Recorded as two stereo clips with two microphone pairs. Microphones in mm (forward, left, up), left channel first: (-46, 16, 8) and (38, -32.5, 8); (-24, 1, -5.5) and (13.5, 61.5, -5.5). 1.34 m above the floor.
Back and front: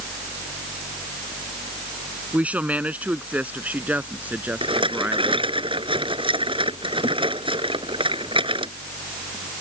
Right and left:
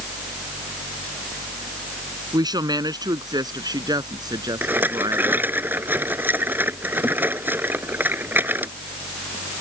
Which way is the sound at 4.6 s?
5° right.